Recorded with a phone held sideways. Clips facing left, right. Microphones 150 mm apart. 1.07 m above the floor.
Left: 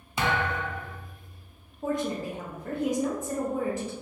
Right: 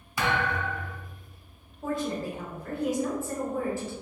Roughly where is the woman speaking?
Centre.